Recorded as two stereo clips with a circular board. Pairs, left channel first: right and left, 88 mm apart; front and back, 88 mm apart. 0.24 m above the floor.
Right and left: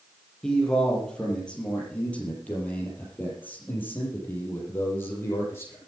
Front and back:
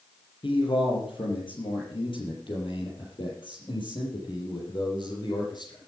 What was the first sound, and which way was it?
A man speaking, 10° right.